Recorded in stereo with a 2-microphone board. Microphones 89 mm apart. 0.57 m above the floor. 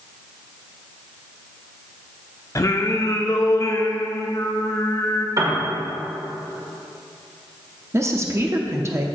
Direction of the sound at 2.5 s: 40° left (ahead or behind).